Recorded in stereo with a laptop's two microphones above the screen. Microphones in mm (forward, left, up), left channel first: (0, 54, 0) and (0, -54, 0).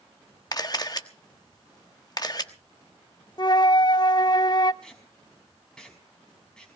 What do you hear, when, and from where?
0.5 s a camera shutter: 35° left (ahead or behind), 1.3 m
3.4 s a flute: 40° left (ahead or behind), 0.5 m
4.8 s tape being pulled: 5° left (ahead or behind), 5 m